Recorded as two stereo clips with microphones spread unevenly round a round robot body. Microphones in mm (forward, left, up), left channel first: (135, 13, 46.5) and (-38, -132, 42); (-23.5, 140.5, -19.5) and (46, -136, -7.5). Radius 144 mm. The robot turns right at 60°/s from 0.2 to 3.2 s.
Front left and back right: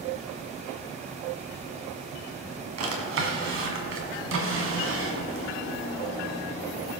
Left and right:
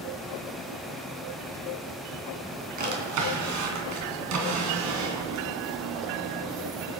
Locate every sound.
2.8 s a drawer: 140° right, 2.5 m; by 6.1 s 115° right, 2.5 m